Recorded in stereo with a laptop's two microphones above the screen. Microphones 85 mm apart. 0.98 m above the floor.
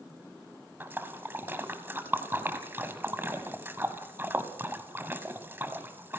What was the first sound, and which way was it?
A splash, 25° right (ahead or behind).